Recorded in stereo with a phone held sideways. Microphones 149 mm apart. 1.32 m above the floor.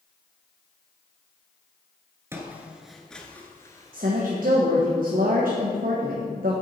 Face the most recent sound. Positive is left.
turn(degrees=-70)  # may be behind; listen again after turning